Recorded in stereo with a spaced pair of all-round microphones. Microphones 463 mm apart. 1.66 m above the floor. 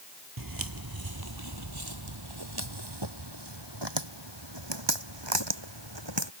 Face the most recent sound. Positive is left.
turn(degrees=-65)  # may be behind; listen again after turning